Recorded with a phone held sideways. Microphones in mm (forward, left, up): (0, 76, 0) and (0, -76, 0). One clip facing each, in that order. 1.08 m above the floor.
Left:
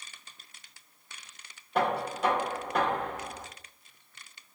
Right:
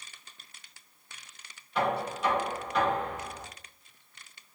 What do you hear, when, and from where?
1.8 s knocking: 50° left (ahead or behind), 0.6 m